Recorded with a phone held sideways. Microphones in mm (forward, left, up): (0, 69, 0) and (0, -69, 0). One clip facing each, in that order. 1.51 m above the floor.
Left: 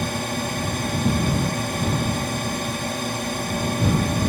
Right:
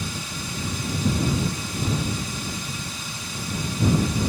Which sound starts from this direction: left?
A drone, at 0.0 s.